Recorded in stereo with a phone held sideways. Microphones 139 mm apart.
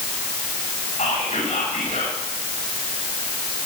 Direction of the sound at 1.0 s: 60° left (ahead or behind).